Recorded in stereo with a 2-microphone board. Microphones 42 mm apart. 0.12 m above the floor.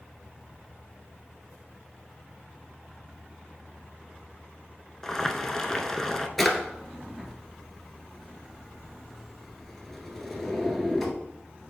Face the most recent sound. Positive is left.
turn(degrees=5)  # may be behind; listen again after turning